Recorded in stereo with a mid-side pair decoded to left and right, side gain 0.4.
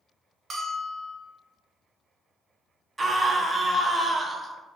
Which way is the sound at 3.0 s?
40° right.